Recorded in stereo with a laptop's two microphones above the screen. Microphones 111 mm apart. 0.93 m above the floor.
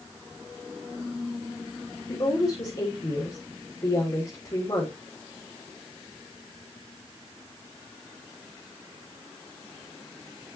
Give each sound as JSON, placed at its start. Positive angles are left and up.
{"t": 2.1, "sound": "a woman speaking", "side_deg": 45, "distance_m": 3.0}